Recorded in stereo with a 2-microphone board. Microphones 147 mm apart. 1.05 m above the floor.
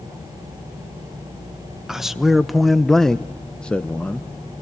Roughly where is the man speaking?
Centre.